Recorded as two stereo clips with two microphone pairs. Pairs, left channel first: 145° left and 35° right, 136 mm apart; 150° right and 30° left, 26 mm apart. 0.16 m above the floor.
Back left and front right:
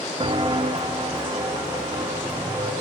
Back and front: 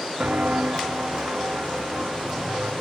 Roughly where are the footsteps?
Ahead.